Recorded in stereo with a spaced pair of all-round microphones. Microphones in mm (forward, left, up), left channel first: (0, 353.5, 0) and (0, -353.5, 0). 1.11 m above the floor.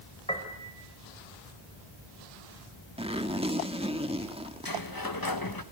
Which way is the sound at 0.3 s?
10° left (ahead or behind).